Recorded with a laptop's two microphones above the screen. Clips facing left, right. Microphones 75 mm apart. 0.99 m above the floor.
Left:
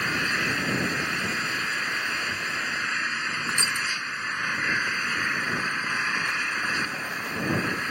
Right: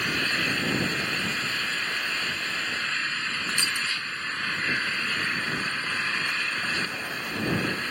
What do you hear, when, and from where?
0.0 s an engine running: 15° left (ahead or behind)
3.5 s crushing: 20° left (ahead or behind)